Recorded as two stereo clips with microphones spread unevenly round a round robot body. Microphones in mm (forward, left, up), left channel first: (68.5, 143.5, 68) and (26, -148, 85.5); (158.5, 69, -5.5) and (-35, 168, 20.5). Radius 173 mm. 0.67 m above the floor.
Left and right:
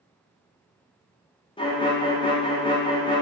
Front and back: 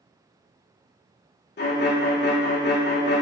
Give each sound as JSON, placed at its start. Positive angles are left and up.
{"t": 1.6, "sound": "a violin", "azimuth_deg": 10, "distance_m": 0.7}